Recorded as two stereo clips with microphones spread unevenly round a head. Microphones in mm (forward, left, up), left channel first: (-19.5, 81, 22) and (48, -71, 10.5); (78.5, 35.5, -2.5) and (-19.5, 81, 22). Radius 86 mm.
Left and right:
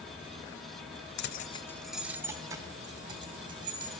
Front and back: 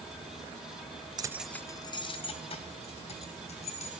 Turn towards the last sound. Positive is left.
turn(degrees=-5)